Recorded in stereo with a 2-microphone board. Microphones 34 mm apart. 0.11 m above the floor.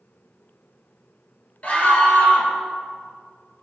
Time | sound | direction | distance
1.6 | a scream | 40° left (ahead or behind) | 2.5 m